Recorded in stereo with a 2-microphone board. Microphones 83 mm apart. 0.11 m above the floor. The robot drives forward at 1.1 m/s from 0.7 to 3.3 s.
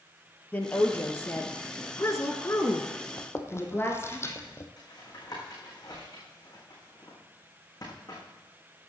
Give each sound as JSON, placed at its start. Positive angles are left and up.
{"t": 0.5, "sound": "a woman speaking", "side_deg": 20, "distance_m": 2.0}
{"t": 3.2, "sound": "chewing", "side_deg": 35, "distance_m": 1.5}
{"t": 4.8, "sound": "tapping", "side_deg": 50, "distance_m": 6.0}